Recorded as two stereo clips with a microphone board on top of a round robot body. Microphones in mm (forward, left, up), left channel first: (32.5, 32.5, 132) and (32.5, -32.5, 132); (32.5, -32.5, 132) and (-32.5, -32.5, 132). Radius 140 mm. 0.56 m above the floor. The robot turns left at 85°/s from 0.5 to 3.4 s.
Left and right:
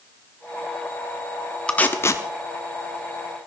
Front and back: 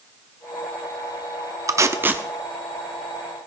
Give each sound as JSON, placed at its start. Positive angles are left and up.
{"t": 1.7, "sound": "tape being pulled", "azimuth_deg": 160, "distance_m": 1.0}